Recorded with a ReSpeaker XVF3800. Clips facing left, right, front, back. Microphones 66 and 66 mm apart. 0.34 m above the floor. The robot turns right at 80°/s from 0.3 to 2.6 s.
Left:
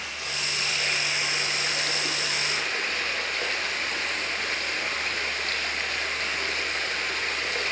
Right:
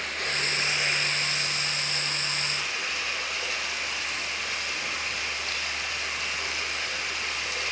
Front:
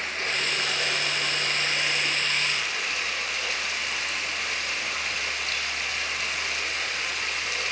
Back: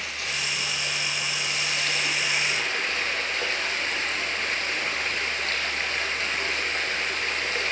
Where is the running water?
55° right, 2.5 m; by 7.7 s 130° left, 2.5 m.